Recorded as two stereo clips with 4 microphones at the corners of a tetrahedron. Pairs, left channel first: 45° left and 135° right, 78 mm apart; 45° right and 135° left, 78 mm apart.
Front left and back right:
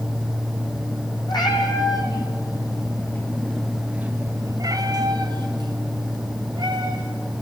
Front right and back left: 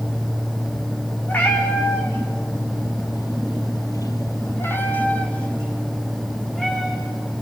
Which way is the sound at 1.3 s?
20° left.